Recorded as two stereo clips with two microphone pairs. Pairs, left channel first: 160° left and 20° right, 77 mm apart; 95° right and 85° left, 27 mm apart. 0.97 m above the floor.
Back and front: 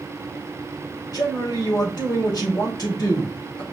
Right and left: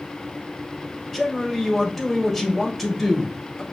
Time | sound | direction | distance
1.1 | a man speaking | straight behind | 1.9 m